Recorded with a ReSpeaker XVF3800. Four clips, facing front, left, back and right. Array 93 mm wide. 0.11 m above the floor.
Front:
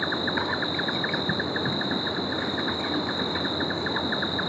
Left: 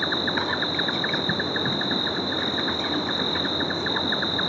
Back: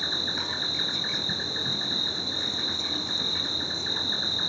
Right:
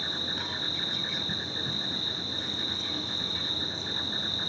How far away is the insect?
About 1.0 m.